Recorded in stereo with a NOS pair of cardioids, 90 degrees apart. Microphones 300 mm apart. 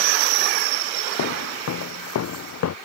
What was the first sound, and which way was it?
Footsteps, 55° left.